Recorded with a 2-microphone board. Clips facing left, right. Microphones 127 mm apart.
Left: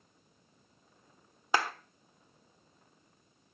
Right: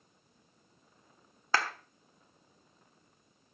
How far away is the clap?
About 1.0 m.